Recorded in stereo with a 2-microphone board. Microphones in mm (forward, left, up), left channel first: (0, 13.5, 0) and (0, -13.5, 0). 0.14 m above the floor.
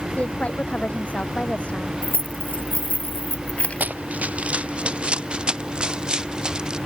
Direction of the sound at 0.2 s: 55° left (ahead or behind).